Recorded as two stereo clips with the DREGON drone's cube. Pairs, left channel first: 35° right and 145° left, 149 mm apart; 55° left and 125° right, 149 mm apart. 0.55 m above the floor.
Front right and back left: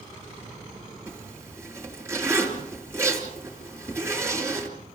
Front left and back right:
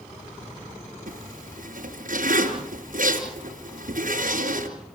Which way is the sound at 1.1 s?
145° right.